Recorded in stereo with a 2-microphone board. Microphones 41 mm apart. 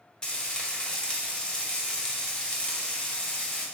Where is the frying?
20° left (ahead or behind), 0.7 m.